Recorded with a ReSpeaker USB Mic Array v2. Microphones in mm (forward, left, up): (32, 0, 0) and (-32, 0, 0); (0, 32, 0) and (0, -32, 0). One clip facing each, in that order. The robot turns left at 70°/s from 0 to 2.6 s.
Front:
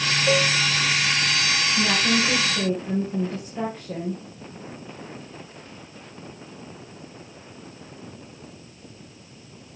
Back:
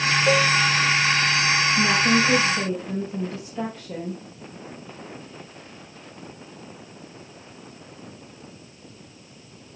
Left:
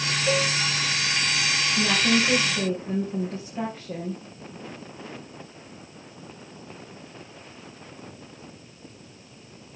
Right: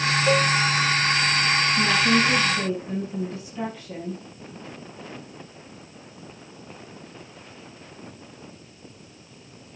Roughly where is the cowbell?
Behind.